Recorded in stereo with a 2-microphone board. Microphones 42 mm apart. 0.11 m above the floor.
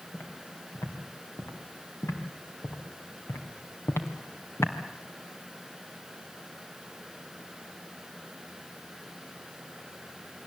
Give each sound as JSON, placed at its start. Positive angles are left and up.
{"t": 0.1, "sound": "footsteps", "side_deg": 70, "distance_m": 5.5}